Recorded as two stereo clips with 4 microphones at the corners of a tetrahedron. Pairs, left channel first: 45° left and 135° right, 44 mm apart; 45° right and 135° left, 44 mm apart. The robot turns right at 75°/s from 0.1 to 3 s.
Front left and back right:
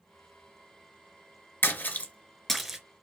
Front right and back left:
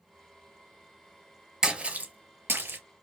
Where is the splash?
65° left, 0.6 m; by 2.8 s 150° left, 0.6 m.